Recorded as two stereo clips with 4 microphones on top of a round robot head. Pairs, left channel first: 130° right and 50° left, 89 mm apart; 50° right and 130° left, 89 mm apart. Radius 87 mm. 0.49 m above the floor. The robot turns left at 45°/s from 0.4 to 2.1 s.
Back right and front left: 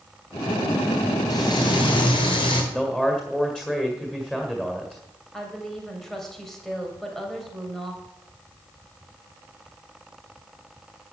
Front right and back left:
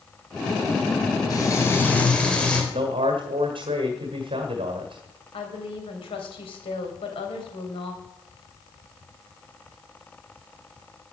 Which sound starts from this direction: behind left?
A man speaking, at 2.7 s.